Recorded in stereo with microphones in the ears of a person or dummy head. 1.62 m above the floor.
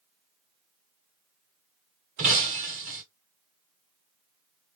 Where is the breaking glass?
25° right (ahead or behind), 0.8 m.